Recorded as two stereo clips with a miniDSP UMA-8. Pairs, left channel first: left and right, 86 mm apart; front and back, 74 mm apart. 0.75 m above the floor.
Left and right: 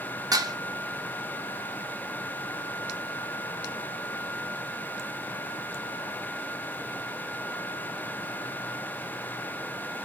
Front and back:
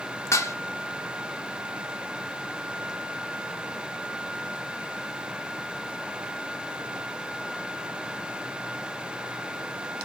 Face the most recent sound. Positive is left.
turn(degrees=-50)